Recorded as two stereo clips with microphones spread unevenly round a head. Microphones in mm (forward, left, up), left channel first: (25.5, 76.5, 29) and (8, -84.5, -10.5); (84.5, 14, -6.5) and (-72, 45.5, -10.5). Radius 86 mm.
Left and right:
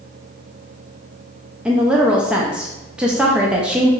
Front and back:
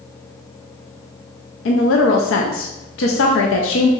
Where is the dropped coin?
No dropped coin in this recording.